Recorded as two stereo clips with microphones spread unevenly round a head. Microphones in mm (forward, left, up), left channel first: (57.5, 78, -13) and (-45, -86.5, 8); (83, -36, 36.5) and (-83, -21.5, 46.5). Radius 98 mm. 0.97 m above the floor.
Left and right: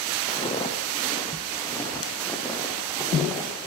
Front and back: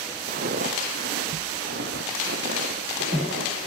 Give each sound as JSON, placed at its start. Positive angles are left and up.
{"t": 0.3, "sound": "footsteps", "azimuth_deg": 125, "distance_m": 2.5}